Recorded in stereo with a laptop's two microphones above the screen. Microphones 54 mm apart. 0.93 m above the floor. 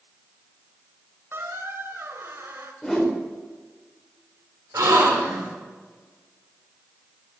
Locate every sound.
1.3 s a squeak: 55° right (ahead or behind), 1.0 m
2.8 s a whoosh: 5° left (ahead or behind), 3 m
4.7 s a gasp: 85° right, 2.5 m